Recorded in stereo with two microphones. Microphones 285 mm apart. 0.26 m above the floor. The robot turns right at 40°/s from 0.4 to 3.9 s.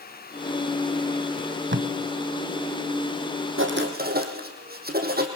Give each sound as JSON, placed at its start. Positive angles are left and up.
{"t": 1.4, "sound": "tape being pulled", "side_deg": -45, "distance_m": 1.2}
{"t": 3.6, "sound": "writing", "side_deg": -45, "distance_m": 3.5}